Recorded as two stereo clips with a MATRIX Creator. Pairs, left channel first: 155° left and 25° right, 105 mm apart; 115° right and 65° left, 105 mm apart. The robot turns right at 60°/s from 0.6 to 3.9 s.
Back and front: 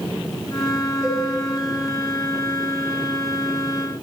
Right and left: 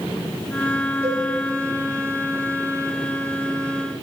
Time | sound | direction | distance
1.0 | a cowbell | 60° left | 6.5 m